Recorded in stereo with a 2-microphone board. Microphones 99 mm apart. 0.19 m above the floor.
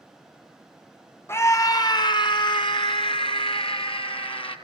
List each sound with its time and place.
1.3 s a scream: 25° left (ahead or behind), 1.0 m; by 4.5 s 65° left (ahead or behind), 3.5 m